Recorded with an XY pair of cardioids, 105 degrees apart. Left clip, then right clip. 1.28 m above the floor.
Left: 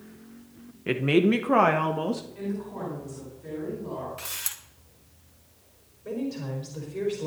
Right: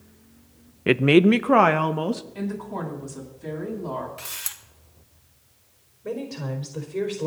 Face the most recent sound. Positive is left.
turn(degrees=-45)